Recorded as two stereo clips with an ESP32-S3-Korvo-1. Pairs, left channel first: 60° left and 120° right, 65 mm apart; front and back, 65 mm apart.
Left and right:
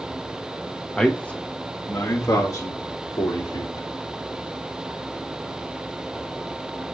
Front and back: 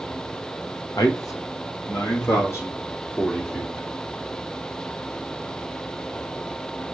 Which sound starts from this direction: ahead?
A man speaking, at 1.0 s.